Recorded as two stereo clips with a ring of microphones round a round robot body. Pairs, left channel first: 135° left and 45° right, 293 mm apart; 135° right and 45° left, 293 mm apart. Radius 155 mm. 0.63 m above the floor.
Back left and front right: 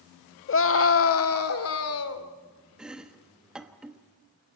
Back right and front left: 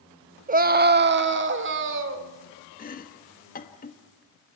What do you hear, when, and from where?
0.5 s a scream: 100° left, 0.9 m; by 2.3 s 95° left, 2.5 m
2.8 s chopping: 130° right, 1.3 m